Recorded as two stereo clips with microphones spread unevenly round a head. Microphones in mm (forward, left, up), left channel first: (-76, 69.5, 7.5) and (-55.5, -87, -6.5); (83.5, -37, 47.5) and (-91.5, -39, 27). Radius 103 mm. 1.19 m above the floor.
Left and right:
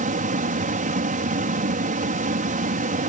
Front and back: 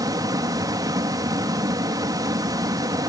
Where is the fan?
110° right.